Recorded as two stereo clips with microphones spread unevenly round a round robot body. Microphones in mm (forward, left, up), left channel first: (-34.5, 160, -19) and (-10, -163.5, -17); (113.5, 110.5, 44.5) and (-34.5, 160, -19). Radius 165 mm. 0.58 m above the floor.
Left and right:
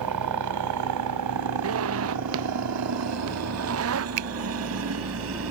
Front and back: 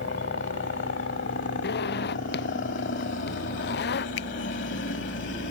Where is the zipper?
35° right.